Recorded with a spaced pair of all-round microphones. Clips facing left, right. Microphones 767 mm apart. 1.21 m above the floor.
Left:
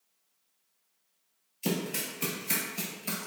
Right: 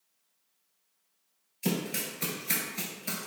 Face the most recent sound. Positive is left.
turn(degrees=0)  # may be behind; listen again after turning